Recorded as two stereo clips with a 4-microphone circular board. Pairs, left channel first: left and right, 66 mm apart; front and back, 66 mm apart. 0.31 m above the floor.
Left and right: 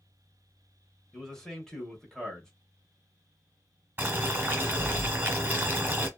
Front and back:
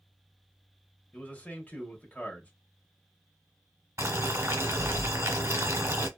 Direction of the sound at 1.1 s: 25° left.